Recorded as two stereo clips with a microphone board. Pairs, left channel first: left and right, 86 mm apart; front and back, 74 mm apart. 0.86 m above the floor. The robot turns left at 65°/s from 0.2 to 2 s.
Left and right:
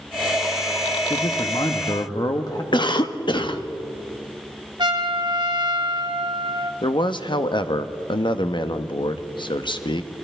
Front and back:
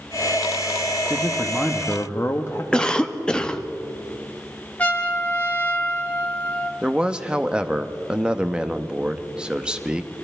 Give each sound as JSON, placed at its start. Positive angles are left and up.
{"t": 1.1, "sound": "a man speaking", "azimuth_deg": 110, "distance_m": 0.8}
{"t": 2.7, "sound": "a cough", "azimuth_deg": 75, "distance_m": 0.9}
{"t": 4.8, "sound": "a trumpet", "azimuth_deg": -70, "distance_m": 1.1}
{"t": 6.8, "sound": "a man speaking", "azimuth_deg": 105, "distance_m": 0.7}